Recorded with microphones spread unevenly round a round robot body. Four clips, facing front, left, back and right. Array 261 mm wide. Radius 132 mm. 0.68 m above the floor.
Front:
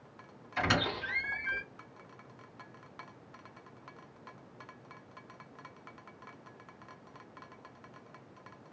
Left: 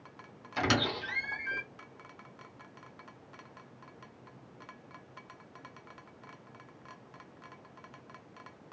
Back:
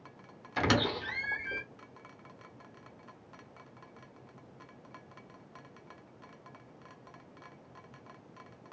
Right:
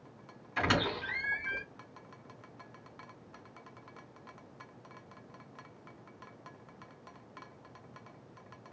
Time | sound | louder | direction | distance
0.6 | a squeak | left 1 dB, back 2 dB | 160° left | 0.8 m